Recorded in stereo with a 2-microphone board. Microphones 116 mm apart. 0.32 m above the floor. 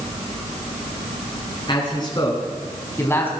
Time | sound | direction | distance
1.7 | a man speaking | 40° left (ahead or behind) | 4 m